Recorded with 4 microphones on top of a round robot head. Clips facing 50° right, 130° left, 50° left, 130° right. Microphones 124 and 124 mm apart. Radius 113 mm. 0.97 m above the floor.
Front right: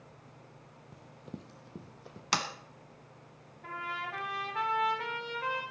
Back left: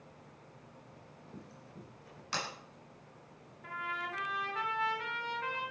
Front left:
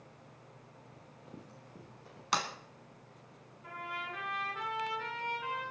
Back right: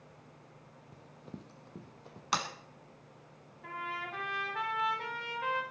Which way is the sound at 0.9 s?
75° right.